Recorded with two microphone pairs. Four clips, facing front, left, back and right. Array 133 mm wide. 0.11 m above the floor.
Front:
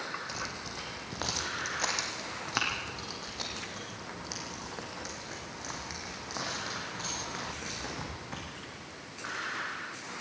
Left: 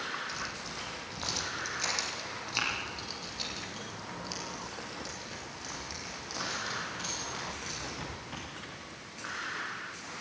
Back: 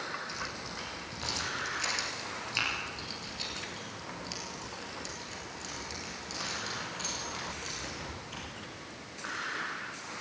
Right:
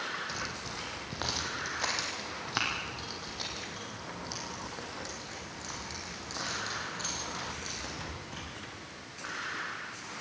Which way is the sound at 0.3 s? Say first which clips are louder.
Right 1 dB, front 1 dB; 45° right.